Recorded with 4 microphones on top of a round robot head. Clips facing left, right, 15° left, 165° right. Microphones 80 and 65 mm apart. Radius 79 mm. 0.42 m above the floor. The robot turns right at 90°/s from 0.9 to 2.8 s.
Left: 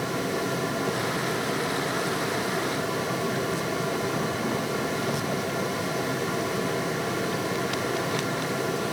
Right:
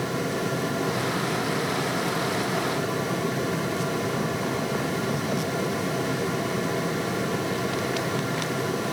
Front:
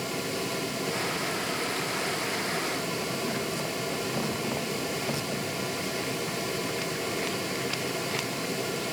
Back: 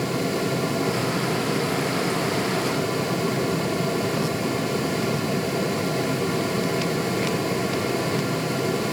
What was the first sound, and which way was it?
Only background noise.